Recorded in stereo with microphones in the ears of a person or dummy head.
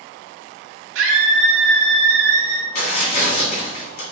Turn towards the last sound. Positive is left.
turn(degrees=55)  # may be behind; listen again after turning